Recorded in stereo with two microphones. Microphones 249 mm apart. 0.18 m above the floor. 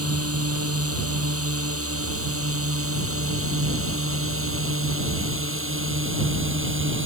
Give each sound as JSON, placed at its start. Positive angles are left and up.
{"t": 0.0, "sound": "a drone", "side_deg": -70}